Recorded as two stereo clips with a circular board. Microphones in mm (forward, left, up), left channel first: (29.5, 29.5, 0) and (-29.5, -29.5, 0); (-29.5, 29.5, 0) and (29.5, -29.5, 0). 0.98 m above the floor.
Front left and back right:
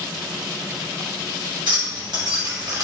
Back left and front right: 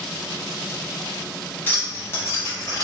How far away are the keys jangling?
About 1.6 m.